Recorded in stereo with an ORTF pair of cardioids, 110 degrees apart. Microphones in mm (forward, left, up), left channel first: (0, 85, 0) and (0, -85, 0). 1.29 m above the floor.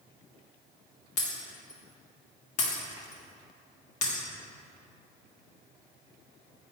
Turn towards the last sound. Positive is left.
turn(degrees=45)